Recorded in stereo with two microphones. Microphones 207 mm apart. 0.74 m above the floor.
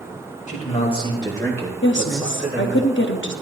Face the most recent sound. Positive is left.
turn(degrees=60)  # may be behind; listen again after turning